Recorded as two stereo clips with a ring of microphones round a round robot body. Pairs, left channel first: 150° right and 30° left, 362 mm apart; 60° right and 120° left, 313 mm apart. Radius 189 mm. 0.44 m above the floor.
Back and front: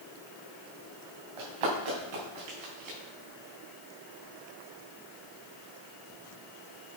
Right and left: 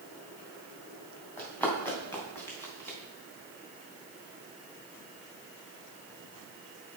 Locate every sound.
1.4 s running footsteps: 25° left, 3.5 m